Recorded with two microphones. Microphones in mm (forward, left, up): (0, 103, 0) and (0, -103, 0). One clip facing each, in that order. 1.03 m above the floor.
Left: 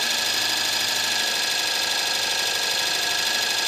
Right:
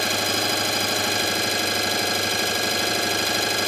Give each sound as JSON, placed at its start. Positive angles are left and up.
{"t": 0.0, "sound": "an engine running", "side_deg": -60, "distance_m": 0.9}